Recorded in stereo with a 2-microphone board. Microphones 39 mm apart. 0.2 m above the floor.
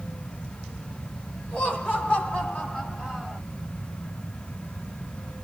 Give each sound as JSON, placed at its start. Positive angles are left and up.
{"t": 1.5, "sound": "laughter", "side_deg": 35, "distance_m": 1.9}